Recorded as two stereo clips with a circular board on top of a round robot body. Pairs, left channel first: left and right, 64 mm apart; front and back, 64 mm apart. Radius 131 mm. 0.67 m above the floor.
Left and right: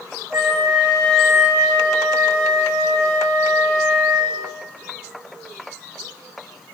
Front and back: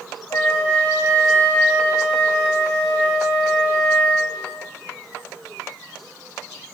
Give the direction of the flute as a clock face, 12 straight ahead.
2 o'clock.